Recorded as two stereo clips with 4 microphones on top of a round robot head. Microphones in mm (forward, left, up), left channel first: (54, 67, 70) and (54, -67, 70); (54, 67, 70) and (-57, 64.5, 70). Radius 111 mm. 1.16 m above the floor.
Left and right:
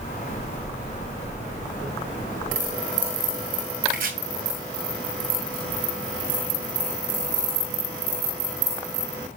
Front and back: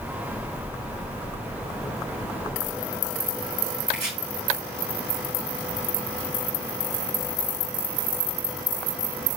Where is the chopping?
110° right, 2.5 m.